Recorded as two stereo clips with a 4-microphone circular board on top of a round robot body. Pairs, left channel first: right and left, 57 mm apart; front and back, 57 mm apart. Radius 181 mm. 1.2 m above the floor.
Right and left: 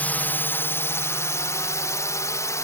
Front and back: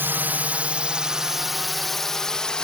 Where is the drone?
140° right; by 2.6 s 75° right.